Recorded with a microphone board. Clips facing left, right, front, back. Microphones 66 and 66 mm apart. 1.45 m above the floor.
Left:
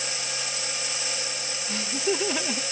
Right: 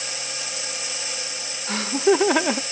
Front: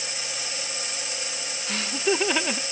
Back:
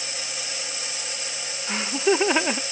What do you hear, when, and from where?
1.7 s laughter: 110° right